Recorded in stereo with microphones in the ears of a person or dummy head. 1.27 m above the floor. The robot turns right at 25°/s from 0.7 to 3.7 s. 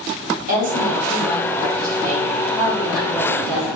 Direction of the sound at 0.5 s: 50° right.